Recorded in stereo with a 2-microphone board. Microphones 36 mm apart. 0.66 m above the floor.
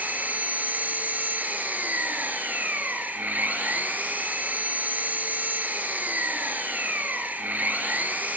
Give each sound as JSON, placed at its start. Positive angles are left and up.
{"t": 0.0, "sound": "an engine running", "side_deg": -55, "distance_m": 3.0}